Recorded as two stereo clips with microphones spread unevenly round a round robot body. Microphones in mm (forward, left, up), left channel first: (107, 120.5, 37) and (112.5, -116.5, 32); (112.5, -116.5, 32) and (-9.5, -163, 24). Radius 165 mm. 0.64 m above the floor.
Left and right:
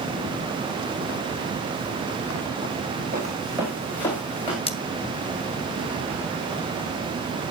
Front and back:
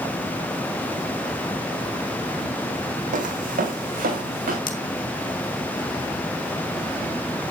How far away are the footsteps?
About 1.6 m.